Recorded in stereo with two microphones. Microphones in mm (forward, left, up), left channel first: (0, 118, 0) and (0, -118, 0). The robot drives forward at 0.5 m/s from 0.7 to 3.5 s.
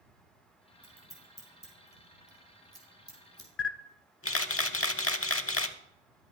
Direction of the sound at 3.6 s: 65° left (ahead or behind).